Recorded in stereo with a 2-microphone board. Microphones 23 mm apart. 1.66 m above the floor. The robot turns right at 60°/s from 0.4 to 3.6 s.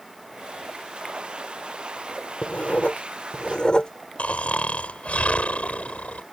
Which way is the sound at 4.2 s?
80° left.